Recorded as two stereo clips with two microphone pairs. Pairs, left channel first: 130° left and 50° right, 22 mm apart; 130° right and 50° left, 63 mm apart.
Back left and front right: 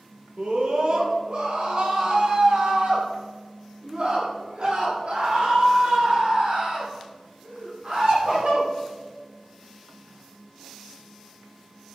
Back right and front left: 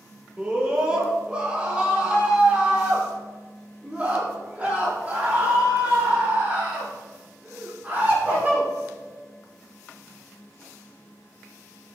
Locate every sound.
0.4 s a scream: 20° right, 5 m; by 8.7 s 15° right, 10.5 m